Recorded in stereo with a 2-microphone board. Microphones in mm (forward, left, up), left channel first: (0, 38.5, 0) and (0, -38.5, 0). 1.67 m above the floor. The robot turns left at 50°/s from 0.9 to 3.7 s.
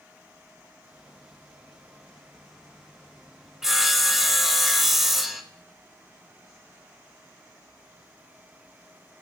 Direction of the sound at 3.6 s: 5° right (ahead or behind).